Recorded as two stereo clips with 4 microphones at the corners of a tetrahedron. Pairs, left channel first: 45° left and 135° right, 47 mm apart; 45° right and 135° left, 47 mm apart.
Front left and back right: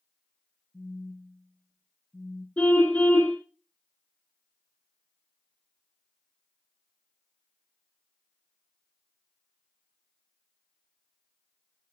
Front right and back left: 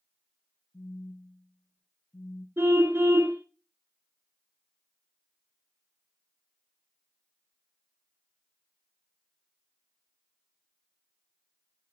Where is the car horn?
95° left, 5 m.